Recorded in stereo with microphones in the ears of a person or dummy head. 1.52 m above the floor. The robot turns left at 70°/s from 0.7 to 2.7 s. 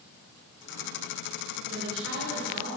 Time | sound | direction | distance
1.7 | a woman speaking | 55° right | 7 m